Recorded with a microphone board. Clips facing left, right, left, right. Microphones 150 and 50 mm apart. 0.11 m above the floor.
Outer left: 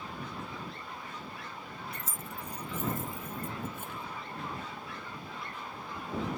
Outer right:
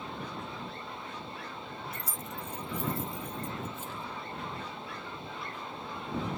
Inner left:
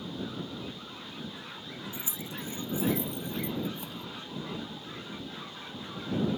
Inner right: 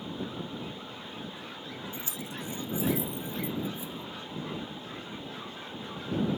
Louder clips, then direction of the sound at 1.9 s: Outer right 2 dB, inner right 1 dB; 20° left (ahead or behind).